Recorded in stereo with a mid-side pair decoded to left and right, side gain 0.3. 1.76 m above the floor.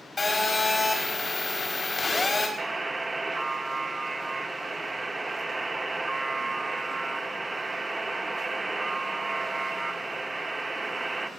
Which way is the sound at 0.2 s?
50° left.